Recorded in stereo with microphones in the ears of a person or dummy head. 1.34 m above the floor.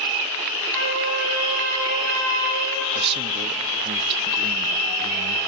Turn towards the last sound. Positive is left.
turn(degrees=-30)  # may be behind; listen again after turning